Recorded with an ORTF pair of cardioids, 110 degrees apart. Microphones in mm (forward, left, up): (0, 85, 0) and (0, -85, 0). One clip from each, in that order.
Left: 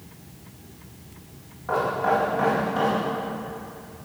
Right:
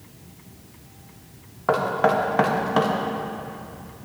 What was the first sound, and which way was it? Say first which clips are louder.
Knocking: right 2 dB; 70° right.